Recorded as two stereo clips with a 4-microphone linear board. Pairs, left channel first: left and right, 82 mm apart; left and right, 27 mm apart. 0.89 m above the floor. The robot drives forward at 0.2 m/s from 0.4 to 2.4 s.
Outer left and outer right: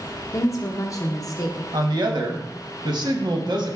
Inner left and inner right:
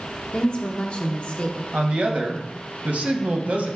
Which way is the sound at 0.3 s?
40° left (ahead or behind).